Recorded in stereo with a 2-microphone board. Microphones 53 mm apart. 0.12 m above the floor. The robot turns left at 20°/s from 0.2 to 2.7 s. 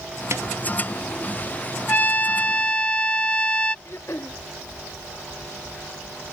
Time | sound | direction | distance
0.3 | a snare drum | 60° right (ahead or behind) | ?
1.9 | a trumpet | 35° left (ahead or behind) | ?
3.9 | throat clearing | 50° left (ahead or behind) | ?